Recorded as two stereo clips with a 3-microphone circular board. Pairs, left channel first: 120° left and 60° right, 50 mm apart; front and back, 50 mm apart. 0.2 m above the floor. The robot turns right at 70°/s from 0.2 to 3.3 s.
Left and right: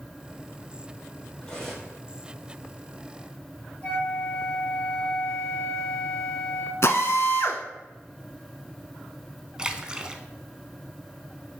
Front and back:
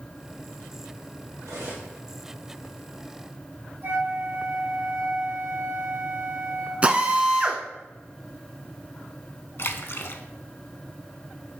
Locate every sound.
1.4 s cutlery clinking: 175° right, 3 m; by 1.9 s 140° right, 3 m
3.8 s a flute: 165° left, 2.0 m
6.8 s a drill: 120° left, 0.8 m
9.6 s a splash: 5° left, 0.6 m